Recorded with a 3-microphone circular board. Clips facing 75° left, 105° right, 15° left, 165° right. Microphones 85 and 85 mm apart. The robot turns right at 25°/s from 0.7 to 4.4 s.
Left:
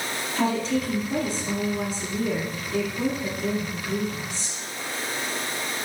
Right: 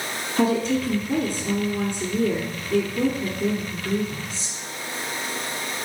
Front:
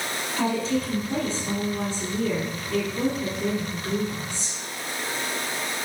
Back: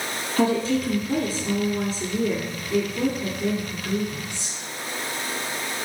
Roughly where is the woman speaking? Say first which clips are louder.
Right 3 dB, back 4 dB; behind right.